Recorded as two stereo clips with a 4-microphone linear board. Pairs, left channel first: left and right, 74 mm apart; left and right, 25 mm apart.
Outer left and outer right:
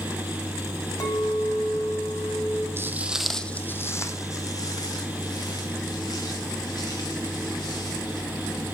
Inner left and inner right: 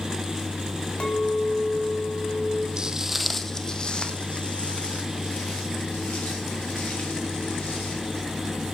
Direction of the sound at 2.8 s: 35° right (ahead or behind).